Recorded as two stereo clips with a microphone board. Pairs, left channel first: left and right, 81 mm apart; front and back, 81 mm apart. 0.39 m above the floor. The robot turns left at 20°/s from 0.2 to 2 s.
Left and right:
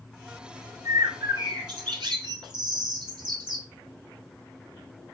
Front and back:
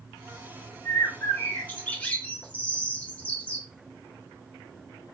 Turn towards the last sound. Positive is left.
turn(degrees=-75)